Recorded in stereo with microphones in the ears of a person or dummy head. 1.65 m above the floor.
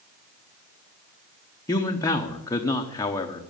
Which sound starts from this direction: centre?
A man speaking, at 1.7 s.